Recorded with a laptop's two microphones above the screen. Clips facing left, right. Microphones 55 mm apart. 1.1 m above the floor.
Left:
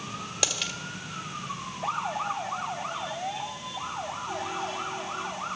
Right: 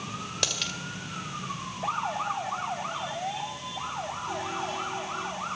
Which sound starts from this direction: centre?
A dropped coin, at 0.4 s.